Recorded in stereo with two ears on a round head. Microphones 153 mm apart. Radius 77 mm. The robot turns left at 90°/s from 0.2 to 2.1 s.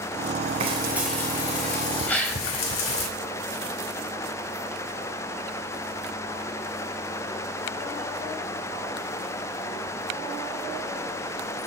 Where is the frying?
140° right, 3.5 m; by 3.1 s 85° left, 3.5 m.